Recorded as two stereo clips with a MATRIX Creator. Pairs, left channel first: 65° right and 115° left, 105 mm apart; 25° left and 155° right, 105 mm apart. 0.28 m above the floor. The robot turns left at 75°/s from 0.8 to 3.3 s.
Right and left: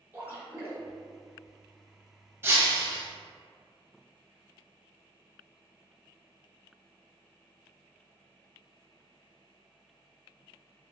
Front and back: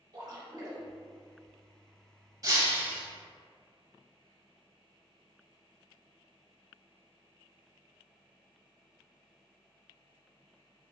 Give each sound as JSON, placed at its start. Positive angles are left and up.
{"t": 0.1, "sound": "a splash", "azimuth_deg": 165, "distance_m": 0.9}
{"t": 2.4, "sound": "breaking glass", "azimuth_deg": 170, "distance_m": 0.6}